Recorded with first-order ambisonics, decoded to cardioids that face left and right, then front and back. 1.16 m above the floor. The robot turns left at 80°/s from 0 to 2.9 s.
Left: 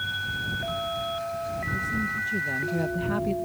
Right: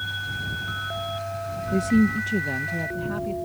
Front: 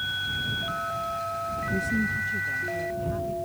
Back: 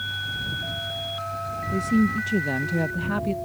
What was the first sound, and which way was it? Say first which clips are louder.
A woman speaking: right 7 dB, back 5 dB; 100° right.